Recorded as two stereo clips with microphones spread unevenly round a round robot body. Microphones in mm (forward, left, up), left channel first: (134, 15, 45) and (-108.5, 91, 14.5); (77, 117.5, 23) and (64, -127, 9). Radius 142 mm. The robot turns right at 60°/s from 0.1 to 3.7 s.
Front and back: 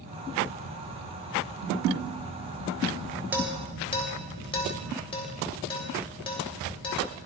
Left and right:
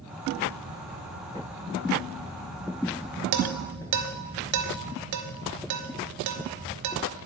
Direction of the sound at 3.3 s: 115° right.